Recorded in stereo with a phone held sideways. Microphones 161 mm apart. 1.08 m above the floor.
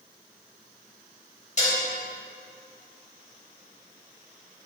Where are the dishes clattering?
50° left (ahead or behind), 3.5 m.